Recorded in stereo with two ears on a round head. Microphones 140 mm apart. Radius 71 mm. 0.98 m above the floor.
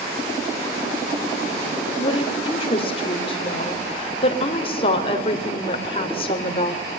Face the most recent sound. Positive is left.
turn(degrees=35)  # may be behind; listen again after turning